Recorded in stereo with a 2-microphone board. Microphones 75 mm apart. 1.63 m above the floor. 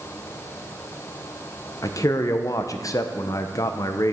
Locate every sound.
1.8 s a man speaking: 50° left (ahead or behind), 0.7 m